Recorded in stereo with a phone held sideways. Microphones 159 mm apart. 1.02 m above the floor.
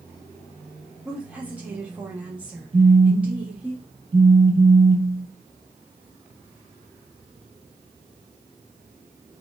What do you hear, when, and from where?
1.1 s a woman speaking: 10° right (ahead or behind), 1.2 m
2.7 s a phone buzzing: 35° right (ahead or behind), 0.7 m